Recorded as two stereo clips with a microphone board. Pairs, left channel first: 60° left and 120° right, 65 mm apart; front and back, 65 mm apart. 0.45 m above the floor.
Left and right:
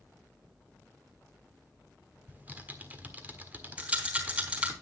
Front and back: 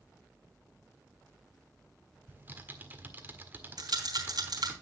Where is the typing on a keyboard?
155° right, 1.5 m.